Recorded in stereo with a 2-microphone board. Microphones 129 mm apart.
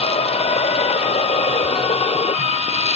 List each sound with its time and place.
0.0 s running water: 50° left (ahead or behind)